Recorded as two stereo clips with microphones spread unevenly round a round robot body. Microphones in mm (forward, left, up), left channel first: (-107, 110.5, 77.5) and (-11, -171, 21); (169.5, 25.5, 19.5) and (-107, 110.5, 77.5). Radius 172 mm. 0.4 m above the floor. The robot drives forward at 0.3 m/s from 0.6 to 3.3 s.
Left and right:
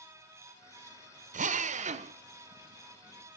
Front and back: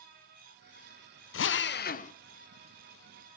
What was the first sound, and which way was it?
A drill, 20° right.